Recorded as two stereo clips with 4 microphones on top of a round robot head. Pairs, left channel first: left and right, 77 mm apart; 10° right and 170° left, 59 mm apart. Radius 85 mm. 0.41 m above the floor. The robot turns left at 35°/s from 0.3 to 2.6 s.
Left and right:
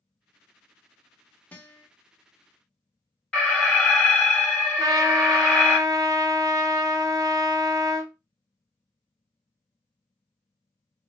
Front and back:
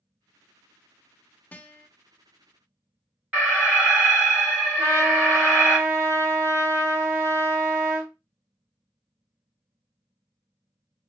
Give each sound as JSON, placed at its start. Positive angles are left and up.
{"t": 1.5, "sound": "a guitar", "azimuth_deg": 30, "distance_m": 0.7}
{"t": 3.3, "sound": "an alarm", "azimuth_deg": 150, "distance_m": 2.5}
{"t": 4.8, "sound": "a trumpet", "azimuth_deg": -135, "distance_m": 0.6}